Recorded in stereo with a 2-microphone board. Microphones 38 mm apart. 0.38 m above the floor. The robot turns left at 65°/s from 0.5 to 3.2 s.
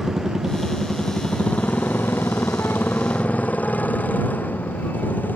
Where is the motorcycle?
5° right (ahead or behind); by 5.3 s 50° left (ahead or behind).